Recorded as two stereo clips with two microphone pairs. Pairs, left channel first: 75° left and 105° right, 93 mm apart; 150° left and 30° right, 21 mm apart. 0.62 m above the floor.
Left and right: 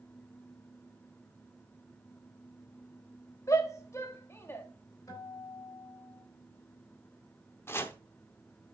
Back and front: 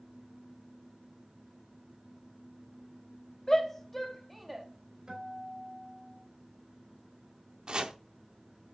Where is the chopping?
15° left, 0.7 m.